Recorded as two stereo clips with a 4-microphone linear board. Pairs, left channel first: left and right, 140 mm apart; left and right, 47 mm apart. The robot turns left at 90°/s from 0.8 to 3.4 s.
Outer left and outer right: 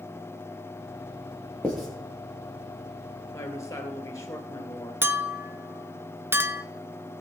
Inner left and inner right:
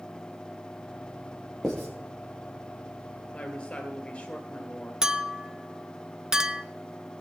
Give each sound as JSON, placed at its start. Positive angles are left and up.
{"t": 1.6, "sound": "writing", "side_deg": 10, "distance_m": 4.5}
{"t": 3.3, "sound": "a woman speaking", "side_deg": 15, "distance_m": 2.5}
{"t": 5.0, "sound": "a clink", "side_deg": -15, "distance_m": 0.7}